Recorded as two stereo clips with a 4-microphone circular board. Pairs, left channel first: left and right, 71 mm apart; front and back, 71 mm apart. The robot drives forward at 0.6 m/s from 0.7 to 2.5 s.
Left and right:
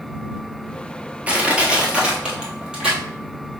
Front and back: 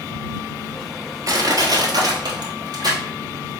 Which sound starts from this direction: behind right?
Crushing, at 1.3 s.